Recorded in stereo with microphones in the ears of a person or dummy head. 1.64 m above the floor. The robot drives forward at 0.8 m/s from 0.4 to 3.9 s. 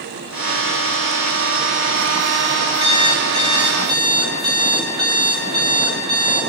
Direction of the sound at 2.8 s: 25° right (ahead or behind).